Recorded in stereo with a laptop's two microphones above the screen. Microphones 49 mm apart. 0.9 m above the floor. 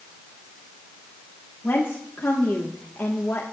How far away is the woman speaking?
About 1.9 m.